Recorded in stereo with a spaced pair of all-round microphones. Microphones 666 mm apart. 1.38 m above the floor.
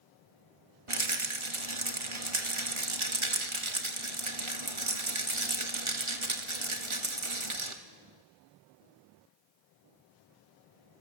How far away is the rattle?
About 1.8 m.